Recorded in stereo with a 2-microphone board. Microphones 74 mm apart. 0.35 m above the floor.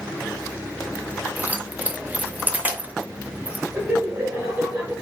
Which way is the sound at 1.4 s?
20° right (ahead or behind).